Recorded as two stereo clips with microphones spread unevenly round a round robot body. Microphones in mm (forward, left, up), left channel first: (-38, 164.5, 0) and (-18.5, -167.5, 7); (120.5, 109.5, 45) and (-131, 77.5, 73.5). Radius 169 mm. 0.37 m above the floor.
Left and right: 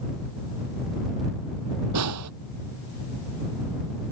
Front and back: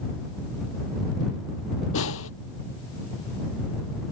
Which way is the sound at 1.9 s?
40° right.